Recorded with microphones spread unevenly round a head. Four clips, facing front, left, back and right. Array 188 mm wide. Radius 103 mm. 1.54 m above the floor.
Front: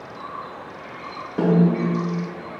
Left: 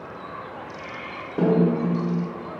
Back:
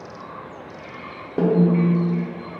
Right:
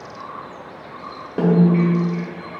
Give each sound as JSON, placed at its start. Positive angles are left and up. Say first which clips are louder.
{"t": 1.4, "sound": "a snare drum", "louder": "right 4 dB, back 1 dB", "azimuth_deg": -145, "distance_m": 1.5}